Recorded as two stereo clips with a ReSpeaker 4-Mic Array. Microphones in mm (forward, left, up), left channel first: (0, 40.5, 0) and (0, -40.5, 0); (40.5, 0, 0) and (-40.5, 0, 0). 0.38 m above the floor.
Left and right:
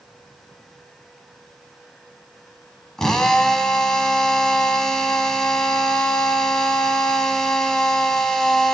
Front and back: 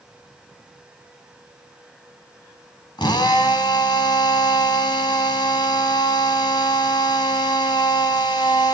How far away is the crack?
I don't hear a crack.